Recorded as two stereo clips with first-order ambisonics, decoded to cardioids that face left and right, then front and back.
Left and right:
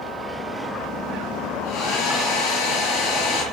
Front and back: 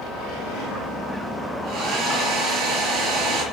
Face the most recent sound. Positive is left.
turn(degrees=125)